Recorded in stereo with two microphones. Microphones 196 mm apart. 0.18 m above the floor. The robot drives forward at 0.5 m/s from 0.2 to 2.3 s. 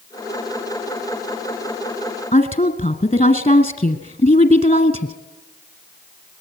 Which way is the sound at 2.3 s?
35° left (ahead or behind).